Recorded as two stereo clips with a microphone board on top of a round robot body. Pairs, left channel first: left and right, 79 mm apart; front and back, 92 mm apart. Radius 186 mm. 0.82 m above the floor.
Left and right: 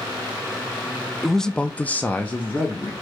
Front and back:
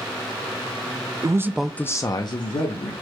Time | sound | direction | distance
1.2 | a man speaking | 175° left | 0.5 m